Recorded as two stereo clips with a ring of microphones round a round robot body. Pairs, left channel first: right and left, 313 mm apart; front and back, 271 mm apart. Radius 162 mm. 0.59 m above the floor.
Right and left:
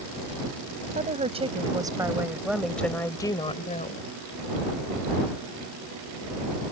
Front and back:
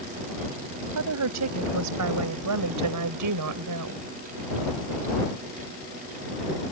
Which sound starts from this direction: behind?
A woman speaking, at 0.9 s.